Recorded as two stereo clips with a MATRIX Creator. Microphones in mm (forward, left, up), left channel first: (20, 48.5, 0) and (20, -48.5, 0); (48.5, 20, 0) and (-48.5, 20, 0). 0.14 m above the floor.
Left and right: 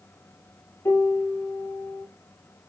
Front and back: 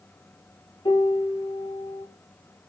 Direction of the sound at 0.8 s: 25° left.